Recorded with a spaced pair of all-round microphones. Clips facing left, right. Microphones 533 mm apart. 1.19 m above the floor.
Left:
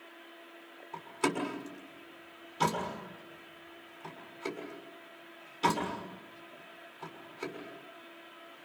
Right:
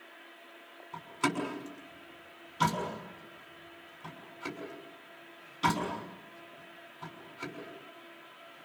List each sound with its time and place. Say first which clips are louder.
0.9 s a door slam: left 1 dB; 25° right (ahead or behind), 6 m